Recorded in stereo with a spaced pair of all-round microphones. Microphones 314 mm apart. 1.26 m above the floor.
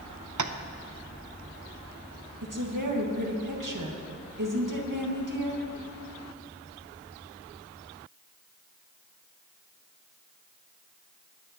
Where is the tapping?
65° right (ahead or behind), 0.6 m.